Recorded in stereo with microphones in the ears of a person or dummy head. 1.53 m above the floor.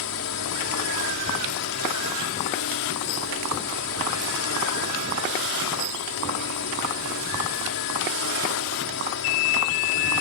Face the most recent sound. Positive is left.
turn(degrees=70)  # may be behind; listen again after turning